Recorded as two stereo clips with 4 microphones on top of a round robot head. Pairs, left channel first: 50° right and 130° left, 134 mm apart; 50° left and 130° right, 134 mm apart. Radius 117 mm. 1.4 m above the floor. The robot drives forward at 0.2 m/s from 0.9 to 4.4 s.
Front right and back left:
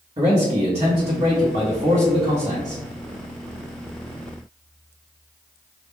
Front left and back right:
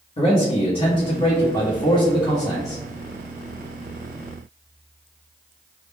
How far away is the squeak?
I don't hear a squeak.